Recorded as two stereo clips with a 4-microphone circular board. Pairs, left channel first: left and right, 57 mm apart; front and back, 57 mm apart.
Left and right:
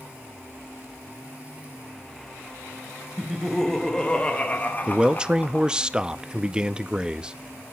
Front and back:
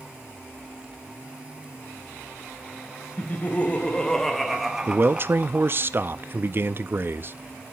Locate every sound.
3.2 s laughter: 5° right, 1.0 m; by 5.8 s 130° left, 1.2 m
4.9 s a man speaking: 160° right, 0.5 m